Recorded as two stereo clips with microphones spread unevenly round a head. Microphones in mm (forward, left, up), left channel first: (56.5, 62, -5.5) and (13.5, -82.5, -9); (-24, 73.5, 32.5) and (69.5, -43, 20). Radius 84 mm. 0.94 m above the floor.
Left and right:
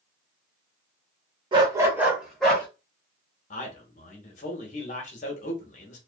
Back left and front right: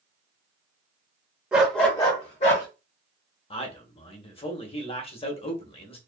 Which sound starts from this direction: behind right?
A dog barking, at 1.5 s.